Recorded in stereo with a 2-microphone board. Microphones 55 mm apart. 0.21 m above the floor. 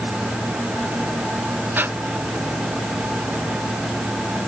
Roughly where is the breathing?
Right.